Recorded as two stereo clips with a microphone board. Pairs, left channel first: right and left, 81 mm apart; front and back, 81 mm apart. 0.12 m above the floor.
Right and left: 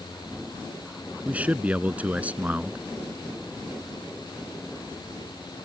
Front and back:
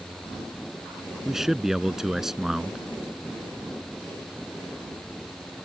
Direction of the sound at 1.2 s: 105° left.